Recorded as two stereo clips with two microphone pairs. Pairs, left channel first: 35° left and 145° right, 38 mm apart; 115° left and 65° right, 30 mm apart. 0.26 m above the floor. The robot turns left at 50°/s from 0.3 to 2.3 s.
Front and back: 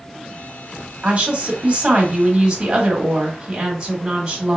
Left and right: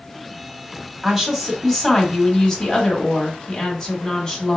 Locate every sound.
1.0 s a woman speaking: 135° right, 1.4 m; by 4.6 s 160° left, 1.4 m